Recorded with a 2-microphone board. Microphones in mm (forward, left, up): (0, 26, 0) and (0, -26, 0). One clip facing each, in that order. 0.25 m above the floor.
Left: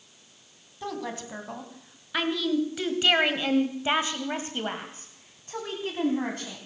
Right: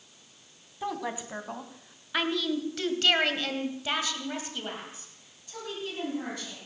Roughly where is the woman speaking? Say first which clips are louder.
Right 1 dB; centre.